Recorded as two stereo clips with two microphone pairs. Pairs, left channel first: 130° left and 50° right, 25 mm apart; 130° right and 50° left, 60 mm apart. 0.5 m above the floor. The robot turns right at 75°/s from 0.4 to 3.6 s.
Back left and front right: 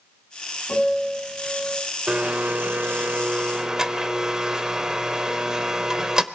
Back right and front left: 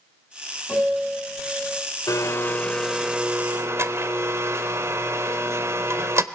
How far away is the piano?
About 5.5 m.